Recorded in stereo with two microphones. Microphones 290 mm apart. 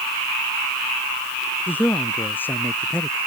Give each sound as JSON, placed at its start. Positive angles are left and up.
{"t": 1.7, "sound": "a man speaking", "side_deg": 5}